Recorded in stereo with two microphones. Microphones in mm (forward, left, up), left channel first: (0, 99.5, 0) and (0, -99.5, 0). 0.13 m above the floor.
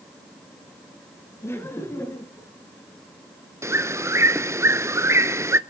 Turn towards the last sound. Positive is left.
turn(degrees=-15)  # may be behind; listen again after turning